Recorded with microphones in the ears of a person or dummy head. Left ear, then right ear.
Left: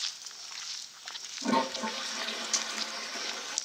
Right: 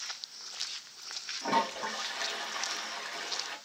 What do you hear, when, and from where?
1.4 s a toilet flushing: 10° right (ahead or behind), 1.3 m